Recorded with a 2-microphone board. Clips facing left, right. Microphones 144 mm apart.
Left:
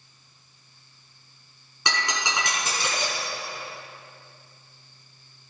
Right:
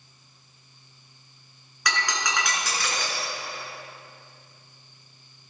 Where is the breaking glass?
25° left (ahead or behind), 3.5 m.